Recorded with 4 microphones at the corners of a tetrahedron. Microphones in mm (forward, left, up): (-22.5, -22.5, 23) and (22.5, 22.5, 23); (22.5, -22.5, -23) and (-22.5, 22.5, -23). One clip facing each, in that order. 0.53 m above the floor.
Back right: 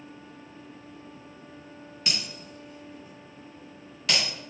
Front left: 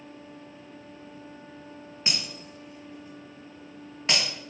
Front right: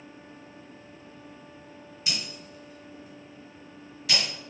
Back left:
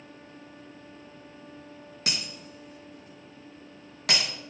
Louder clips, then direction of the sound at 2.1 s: Even, back left 1 dB; 110° left.